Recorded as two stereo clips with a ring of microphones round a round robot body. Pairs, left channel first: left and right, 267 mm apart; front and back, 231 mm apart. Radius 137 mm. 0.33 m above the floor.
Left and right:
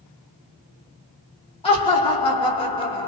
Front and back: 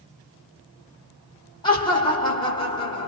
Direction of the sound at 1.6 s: 45° left.